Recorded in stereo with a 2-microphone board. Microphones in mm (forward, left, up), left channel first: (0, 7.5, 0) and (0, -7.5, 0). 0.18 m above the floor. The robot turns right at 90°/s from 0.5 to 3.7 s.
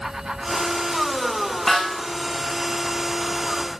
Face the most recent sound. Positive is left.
turn(degrees=-5)